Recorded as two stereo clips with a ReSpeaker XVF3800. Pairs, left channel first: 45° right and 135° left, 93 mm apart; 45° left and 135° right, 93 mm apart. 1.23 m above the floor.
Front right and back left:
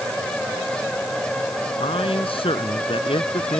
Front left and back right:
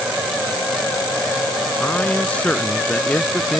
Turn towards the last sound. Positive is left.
turn(degrees=-30)